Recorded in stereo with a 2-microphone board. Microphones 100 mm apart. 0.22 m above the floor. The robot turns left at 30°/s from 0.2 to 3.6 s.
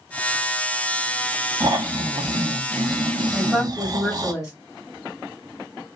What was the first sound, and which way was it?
Snoring, 55° right.